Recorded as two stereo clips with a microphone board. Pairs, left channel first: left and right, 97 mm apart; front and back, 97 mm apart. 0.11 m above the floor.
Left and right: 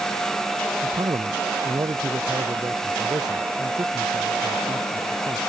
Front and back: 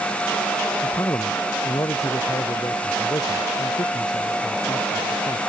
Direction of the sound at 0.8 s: 55° right.